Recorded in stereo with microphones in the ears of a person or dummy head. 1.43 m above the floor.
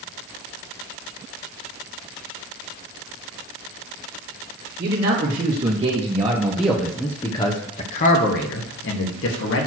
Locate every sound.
4.8 s a man speaking: 45° right (ahead or behind), 1.7 m; by 9.7 s 75° left (ahead or behind), 1.6 m